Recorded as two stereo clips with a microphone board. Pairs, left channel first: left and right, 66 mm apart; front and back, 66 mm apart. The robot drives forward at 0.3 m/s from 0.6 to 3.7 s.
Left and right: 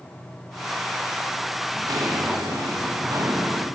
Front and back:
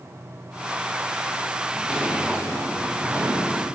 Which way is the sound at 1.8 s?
100° right.